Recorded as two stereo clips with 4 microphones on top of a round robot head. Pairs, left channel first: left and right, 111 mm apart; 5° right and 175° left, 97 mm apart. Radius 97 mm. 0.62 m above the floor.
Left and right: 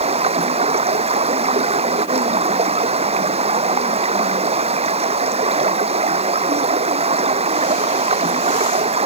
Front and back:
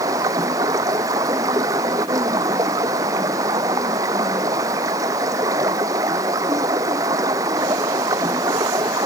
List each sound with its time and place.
0.0 s running water: 120° right